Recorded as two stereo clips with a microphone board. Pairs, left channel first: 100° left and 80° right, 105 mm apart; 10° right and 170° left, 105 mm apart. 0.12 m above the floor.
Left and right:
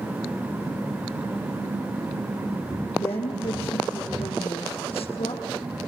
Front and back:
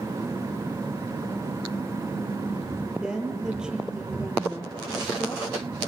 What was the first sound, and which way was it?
A woman speaking, 85° left.